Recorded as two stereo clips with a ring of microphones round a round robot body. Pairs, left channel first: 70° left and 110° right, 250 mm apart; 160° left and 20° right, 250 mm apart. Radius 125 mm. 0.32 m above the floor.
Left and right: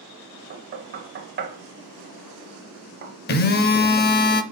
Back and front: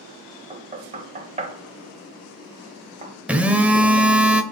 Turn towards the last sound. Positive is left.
turn(degrees=60)